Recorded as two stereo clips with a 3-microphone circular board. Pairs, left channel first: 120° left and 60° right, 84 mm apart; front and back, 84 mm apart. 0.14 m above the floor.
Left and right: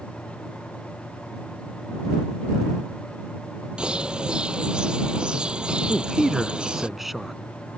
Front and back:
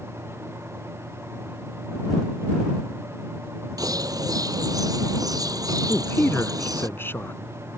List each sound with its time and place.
3.8 s a bird: 140° right
5.9 s a man speaking: 25° left